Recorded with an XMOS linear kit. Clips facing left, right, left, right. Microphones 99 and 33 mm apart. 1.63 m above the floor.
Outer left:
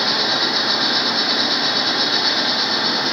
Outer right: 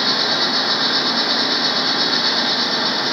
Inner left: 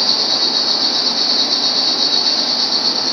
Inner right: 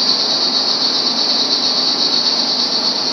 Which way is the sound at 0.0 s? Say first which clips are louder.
Even, even; 20° right (ahead or behind).